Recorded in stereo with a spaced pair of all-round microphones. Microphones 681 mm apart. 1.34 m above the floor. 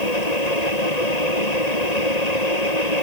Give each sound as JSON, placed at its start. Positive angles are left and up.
{"t": 0.0, "sound": "a fan", "side_deg": 85}